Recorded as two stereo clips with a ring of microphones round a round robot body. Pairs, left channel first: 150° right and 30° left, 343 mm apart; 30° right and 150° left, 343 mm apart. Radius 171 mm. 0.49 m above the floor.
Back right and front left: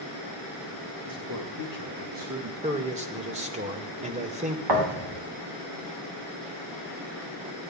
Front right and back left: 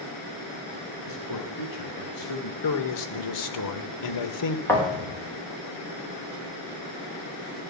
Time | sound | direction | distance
1.1 | a man speaking | straight ahead | 7 m
2.6 | a man speaking | 35° right | 1.6 m
4.7 | a thud | 55° left | 4.5 m